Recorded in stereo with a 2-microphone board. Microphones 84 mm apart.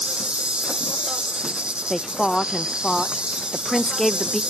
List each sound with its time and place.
0.0 s an insect: 10° right (ahead or behind), 0.7 m
1.9 s a woman speaking: 5° left (ahead or behind), 0.5 m